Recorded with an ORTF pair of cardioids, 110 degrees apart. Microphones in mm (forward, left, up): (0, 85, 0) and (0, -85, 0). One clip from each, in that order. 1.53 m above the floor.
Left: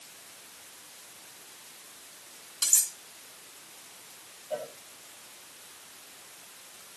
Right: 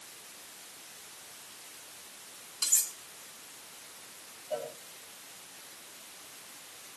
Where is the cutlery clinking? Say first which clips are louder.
Left 3 dB; 25° left, 2.5 m.